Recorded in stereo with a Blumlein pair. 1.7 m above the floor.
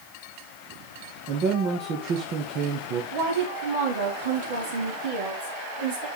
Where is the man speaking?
35° right, 1.5 m.